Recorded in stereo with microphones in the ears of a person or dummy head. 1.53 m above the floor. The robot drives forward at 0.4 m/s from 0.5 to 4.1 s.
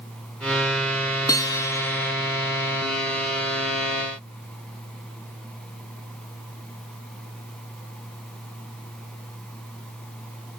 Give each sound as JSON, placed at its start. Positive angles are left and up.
{"t": 1.3, "sound": "a guitar", "side_deg": 15, "distance_m": 0.9}